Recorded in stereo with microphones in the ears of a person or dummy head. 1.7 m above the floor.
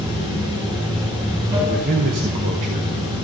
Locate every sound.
0.0 s running water: 20° right (ahead or behind), 3 m
1.7 s a man speaking: 30° right (ahead or behind), 0.6 m